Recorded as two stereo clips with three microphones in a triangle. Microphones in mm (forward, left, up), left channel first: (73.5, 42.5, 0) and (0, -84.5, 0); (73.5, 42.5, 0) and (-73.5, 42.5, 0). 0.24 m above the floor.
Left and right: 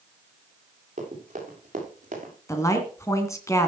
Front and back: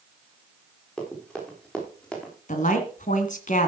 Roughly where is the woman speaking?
Ahead.